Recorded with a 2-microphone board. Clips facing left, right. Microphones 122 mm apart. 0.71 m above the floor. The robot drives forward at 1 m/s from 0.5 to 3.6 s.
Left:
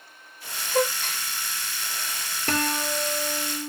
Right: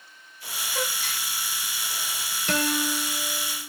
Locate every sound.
0.7 s a gasp: 60° left (ahead or behind), 1.4 m; by 1.3 s 45° left (ahead or behind), 1.8 m
2.5 s a guitar: 60° left (ahead or behind), 2.5 m; by 3.7 s 70° left (ahead or behind), 2 m